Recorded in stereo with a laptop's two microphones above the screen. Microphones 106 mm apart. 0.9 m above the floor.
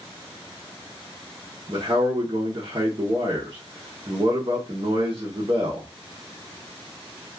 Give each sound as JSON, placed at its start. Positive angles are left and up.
{"t": 1.7, "sound": "a man speaking", "side_deg": -45, "distance_m": 0.8}